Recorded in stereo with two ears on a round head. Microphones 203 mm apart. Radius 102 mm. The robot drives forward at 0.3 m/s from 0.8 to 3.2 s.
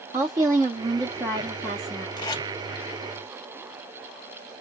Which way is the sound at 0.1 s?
15° right (ahead or behind).